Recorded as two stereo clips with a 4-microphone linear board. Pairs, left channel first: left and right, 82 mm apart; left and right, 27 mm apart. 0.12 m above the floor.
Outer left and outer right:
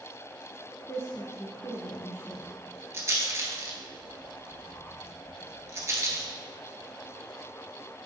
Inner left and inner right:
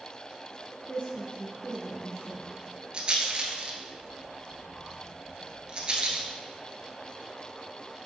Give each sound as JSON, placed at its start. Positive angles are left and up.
{"t": 0.9, "sound": "a woman speaking", "side_deg": 30, "distance_m": 1.3}
{"t": 2.9, "sound": "a rattle", "side_deg": -35, "distance_m": 1.1}